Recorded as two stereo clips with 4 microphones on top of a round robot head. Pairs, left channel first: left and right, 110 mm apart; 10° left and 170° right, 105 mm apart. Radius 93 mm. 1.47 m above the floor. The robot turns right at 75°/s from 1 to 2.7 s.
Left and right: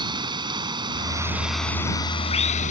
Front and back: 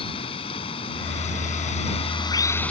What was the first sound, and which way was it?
Running water, 40° right.